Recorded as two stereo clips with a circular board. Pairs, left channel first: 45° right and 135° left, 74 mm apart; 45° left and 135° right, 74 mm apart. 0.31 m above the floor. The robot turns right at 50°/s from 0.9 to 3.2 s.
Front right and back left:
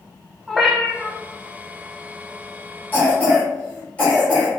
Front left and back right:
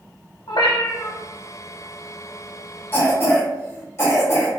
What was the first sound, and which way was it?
A cat meowing, 45° left.